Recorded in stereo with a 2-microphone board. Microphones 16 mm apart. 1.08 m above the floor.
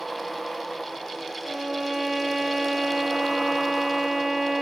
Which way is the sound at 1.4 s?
15° right (ahead or behind).